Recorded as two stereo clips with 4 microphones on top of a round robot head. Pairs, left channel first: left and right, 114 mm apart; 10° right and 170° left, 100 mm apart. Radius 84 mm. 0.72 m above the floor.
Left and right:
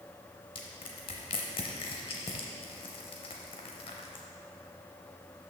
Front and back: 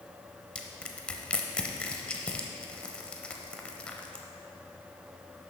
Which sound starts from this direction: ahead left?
Crushing, at 0.6 s.